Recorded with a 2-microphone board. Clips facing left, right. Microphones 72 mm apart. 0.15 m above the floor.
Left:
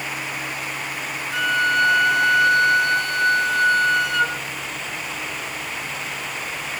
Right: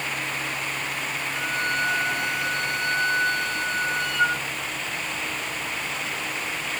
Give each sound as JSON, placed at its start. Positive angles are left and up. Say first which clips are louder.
{"t": 1.3, "sound": "a flute", "louder": "left 9 dB", "side_deg": 70, "distance_m": 0.8}